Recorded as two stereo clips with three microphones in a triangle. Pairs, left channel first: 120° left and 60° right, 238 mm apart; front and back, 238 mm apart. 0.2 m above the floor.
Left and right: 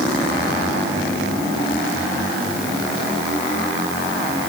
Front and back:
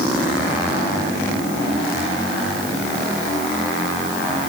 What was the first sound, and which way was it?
Only background noise.